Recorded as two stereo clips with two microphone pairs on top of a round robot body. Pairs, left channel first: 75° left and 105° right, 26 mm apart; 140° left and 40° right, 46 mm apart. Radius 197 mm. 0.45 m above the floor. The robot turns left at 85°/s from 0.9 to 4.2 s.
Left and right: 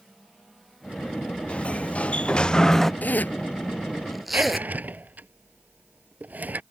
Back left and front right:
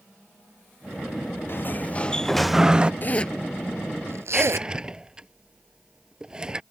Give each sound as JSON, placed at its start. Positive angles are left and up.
{"t": 1.5, "sound": "a sliding door", "azimuth_deg": 110}
{"t": 3.0, "sound": "a zipper", "azimuth_deg": 85}
{"t": 4.3, "sound": "a drawer", "azimuth_deg": -120}